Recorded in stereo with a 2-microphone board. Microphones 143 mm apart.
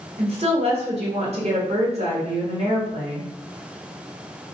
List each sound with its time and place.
0.2 s a woman speaking: 50° right (ahead or behind), 2 m